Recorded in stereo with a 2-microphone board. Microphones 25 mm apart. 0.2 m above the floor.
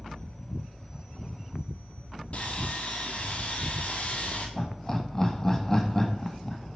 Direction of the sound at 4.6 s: 20° left (ahead or behind).